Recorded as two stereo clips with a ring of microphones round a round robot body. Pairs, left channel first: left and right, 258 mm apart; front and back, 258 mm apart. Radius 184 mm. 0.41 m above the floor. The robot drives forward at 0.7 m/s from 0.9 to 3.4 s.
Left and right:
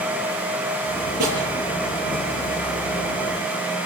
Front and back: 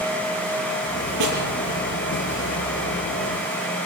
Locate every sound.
1.2 s a snare drum: 140° right, 7.5 m